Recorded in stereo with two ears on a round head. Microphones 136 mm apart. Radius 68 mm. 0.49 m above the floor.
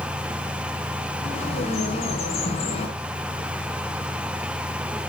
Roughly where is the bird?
Left.